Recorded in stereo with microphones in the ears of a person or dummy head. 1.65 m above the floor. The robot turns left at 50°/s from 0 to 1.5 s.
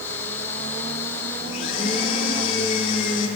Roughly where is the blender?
Left.